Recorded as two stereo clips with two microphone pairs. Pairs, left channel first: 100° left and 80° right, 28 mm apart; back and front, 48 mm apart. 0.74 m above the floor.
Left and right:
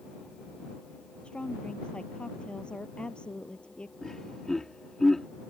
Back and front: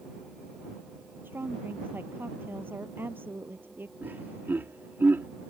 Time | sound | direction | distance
1.2 | a woman speaking | 45° left | ?
4.0 | laughter | 25° left | ?